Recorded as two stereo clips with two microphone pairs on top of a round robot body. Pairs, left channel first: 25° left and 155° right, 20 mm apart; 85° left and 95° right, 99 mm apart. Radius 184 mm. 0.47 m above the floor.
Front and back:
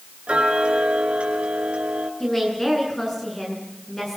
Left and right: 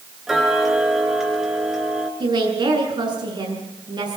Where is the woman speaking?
55° right, 8.5 m.